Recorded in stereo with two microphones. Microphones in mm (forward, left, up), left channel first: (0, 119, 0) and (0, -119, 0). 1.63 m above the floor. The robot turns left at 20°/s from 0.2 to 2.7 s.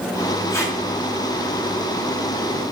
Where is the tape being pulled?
10° left (ahead or behind), 1.5 m; by 0.8 s 15° left (ahead or behind), 1.5 m.